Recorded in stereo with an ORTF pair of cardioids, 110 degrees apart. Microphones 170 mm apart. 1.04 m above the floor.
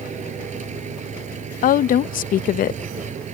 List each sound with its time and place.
0.0 s an engine running: 45° right
1.6 s a woman speaking: 55° left